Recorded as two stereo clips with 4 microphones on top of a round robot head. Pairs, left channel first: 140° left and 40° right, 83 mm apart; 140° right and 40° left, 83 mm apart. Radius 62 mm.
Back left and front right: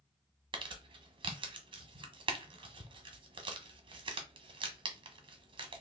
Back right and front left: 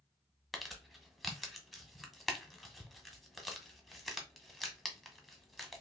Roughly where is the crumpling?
Ahead right.